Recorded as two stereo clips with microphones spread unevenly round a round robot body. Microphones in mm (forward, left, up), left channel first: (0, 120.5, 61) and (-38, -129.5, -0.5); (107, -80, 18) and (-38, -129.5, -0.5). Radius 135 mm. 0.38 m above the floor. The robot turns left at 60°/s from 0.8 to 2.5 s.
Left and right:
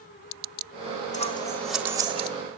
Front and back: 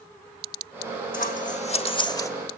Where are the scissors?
15° left, 1.3 m; by 2.3 s 55° right, 1.3 m.